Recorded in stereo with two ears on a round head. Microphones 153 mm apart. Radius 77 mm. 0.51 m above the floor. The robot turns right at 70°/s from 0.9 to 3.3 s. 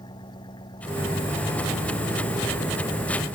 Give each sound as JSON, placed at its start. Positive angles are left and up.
{"t": 0.0, "sound": "an engine running", "azimuth_deg": 25}